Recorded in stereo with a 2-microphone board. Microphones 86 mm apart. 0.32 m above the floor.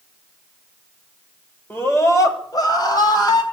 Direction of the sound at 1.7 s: 30° left (ahead or behind).